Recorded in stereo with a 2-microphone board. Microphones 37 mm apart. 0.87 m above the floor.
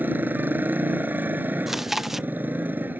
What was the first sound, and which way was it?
A motorcycle, 65° right (ahead or behind).